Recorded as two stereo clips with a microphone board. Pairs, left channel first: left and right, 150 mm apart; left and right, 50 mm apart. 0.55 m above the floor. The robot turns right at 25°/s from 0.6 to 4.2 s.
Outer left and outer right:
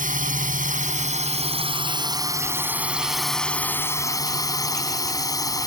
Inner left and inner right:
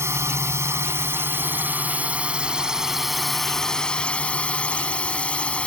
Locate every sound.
0.0 s a drone: 65° right; by 5.7 s 25° left